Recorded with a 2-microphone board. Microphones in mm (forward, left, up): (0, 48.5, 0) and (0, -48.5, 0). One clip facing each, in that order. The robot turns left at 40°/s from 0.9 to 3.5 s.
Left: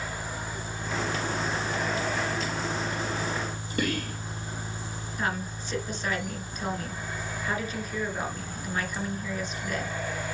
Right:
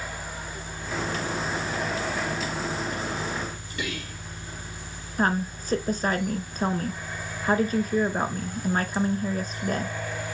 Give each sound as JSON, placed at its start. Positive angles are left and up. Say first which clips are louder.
{"t": 3.8, "sound": "whispering", "louder": "left 5 dB", "side_deg": 45, "distance_m": 4.0}
{"t": 5.2, "sound": "a woman speaking", "louder": "right 7 dB", "side_deg": -40, "distance_m": 2.0}